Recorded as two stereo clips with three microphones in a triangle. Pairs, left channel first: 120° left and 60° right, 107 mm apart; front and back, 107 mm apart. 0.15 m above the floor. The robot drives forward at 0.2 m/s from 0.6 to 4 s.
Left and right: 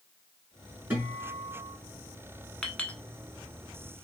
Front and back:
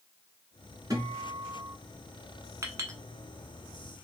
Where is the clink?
170° right, 0.8 m; by 3.0 s 175° right, 0.8 m.